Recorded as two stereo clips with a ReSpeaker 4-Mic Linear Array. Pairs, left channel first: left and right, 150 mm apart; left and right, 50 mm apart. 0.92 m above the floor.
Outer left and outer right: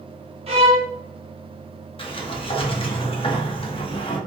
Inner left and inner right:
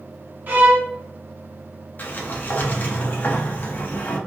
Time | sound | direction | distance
0.5 | a violin | 40° right (ahead or behind) | 0.8 m
2.0 | a sliding door | 35° left (ahead or behind) | 0.6 m